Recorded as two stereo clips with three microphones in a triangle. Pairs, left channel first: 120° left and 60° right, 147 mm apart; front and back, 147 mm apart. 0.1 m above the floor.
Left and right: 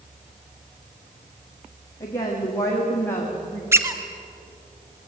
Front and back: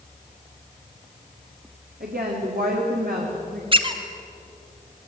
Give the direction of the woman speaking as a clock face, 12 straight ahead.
6 o'clock.